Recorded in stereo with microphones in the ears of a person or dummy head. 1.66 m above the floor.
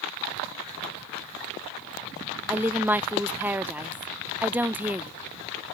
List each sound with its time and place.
2.5 s a woman speaking: 5° right (ahead or behind)